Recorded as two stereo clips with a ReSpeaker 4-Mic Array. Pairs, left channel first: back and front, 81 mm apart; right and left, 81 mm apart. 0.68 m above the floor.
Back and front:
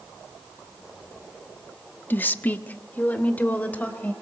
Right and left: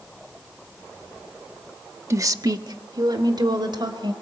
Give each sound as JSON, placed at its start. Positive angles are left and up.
{"t": 2.1, "sound": "a woman speaking", "azimuth_deg": 125, "distance_m": 0.9}